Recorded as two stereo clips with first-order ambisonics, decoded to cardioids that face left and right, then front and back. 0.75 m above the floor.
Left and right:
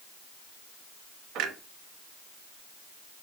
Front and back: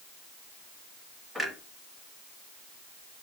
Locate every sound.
1.4 s a clunk: 95° right, 0.6 m